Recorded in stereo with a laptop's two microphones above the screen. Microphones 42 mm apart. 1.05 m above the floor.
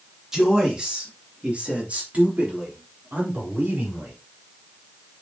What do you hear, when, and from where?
0.3 s a man speaking: 15° right (ahead or behind), 2 m; by 4.1 s 45° right (ahead or behind), 4.5 m